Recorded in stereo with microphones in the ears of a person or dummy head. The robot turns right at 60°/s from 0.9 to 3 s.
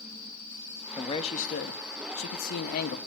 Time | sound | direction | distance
1.0 | a man speaking | 20° left | 1.1 m